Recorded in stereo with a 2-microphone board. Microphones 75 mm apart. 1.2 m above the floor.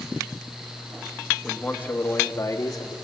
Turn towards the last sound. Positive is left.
turn(degrees=55)  # may be behind; listen again after turning